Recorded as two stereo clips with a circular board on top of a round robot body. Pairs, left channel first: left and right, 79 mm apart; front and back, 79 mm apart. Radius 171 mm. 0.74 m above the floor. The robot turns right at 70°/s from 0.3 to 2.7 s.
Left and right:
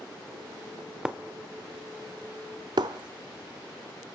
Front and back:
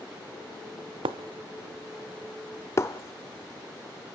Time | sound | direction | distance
1.1 | breaking glass | 170° right | 0.7 m